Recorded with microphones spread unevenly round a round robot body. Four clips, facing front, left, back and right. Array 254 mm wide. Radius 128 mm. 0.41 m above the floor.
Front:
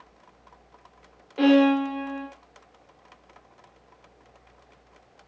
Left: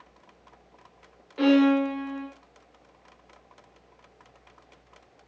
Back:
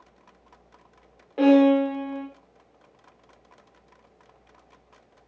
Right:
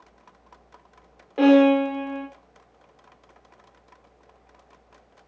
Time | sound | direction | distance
1.4 | a violin | 115° right | 0.7 m